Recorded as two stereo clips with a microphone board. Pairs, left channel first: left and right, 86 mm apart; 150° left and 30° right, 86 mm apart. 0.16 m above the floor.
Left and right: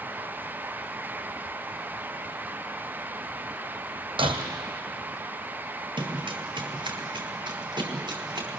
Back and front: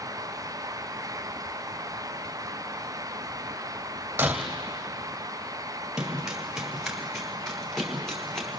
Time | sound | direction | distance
4.2 | breaking glass | 100° right | 3 m
6.0 | running footsteps | 115° right | 5.5 m